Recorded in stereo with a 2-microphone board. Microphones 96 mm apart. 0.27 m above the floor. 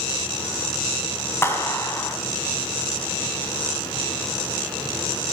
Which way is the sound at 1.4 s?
25° left (ahead or behind).